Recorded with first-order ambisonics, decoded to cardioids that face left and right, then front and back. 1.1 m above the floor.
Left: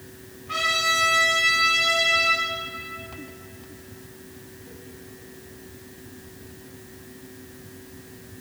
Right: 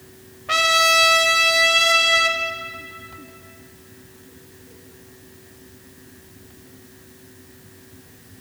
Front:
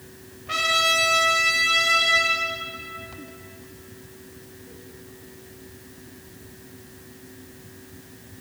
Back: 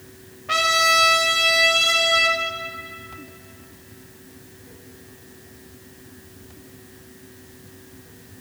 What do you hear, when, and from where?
0.5 s a trumpet: 110° right, 0.8 m